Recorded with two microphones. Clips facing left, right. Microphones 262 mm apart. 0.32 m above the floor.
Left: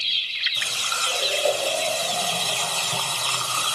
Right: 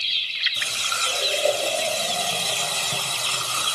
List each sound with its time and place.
0.6 s a running tap: 20° right (ahead or behind), 1.8 m